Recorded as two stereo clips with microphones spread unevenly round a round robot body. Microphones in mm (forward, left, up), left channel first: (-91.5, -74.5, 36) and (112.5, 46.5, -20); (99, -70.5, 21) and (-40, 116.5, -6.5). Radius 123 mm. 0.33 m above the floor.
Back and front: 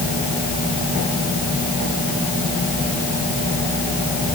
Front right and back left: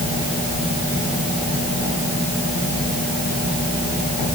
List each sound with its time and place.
Only background noise.